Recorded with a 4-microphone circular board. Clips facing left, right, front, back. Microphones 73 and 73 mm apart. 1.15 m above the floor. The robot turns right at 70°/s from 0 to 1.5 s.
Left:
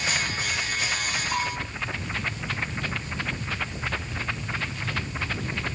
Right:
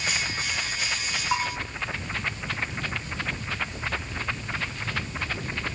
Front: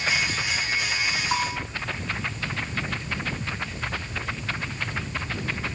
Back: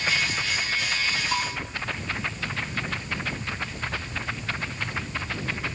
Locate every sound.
1.3 s a bell: 55° right, 6 m; by 1.6 s 45° right, 6 m